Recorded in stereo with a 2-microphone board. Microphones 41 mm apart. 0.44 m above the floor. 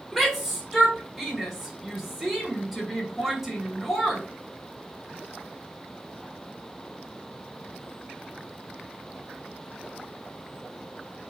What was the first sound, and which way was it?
A shout, 10° right (ahead or behind).